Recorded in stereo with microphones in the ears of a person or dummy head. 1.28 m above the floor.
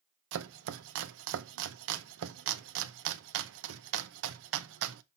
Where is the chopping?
80° right, 0.7 m.